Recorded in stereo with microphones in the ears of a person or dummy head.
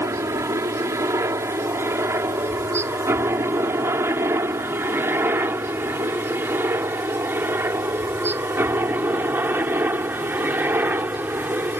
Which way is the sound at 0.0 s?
15° right (ahead or behind).